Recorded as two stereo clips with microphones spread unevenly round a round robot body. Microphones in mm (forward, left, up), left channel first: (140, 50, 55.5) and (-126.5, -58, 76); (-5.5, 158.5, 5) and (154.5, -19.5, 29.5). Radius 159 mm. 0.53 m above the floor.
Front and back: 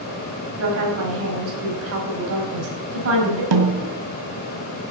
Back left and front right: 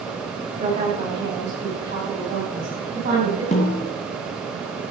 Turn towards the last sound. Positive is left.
turn(degrees=-160)